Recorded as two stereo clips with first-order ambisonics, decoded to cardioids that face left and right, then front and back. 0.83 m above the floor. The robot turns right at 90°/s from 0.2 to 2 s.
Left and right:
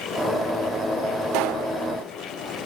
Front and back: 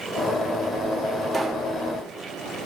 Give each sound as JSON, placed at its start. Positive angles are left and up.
{"t": 1.3, "sound": "a pop", "azimuth_deg": -105, "distance_m": 2.5}